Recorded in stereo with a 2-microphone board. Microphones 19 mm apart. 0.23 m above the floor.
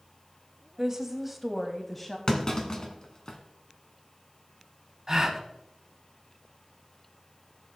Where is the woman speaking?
20° right (ahead or behind), 1.0 m; by 2.2 s 15° left (ahead or behind), 1.1 m.